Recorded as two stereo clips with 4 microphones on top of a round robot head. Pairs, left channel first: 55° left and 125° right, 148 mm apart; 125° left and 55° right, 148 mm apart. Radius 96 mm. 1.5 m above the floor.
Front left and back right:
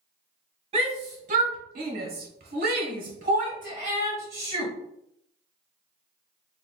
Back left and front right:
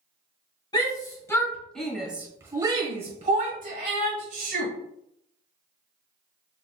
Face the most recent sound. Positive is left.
turn(degrees=-70)